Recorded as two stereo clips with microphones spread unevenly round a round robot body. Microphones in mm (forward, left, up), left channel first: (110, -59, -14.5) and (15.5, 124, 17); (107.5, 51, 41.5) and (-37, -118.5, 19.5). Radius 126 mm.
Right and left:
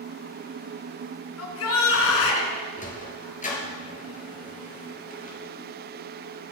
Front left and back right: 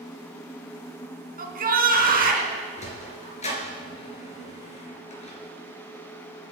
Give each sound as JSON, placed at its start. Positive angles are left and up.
{"t": 1.4, "sound": "a shout", "azimuth_deg": -80, "distance_m": 4.0}
{"t": 2.8, "sound": "a sliding door", "azimuth_deg": -10, "distance_m": 4.0}